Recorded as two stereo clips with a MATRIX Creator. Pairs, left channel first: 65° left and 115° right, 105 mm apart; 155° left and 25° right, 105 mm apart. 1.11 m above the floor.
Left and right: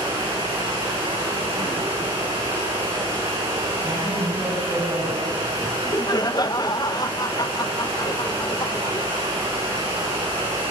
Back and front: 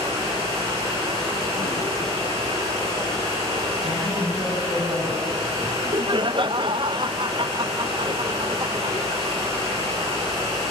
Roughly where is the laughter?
Ahead.